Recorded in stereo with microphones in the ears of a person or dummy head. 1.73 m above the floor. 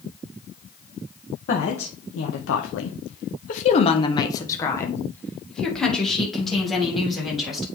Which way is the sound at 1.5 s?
55° left (ahead or behind).